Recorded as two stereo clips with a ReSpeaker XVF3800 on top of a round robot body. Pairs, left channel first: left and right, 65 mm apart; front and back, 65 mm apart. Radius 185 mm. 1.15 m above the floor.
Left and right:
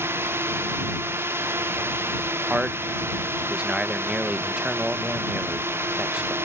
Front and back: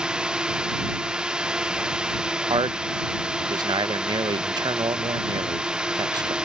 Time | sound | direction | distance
0.0 | a drone | 110° right | ?
2.5 | a man speaking | 170° right | ?